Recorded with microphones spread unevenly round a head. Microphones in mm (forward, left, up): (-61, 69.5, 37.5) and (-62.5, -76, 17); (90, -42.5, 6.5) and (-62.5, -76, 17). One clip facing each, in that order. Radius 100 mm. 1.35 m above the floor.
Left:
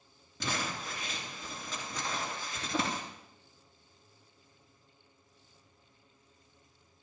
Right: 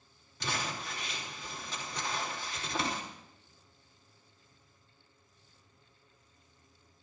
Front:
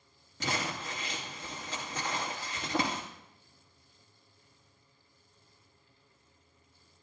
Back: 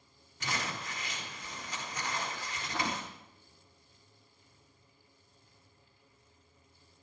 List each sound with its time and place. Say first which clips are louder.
0.4 s crumpling: left 1 dB, front 3 dB; 60° left, 2 m